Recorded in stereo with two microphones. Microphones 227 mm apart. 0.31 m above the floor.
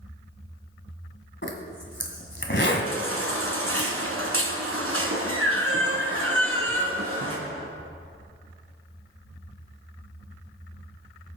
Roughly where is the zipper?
Left.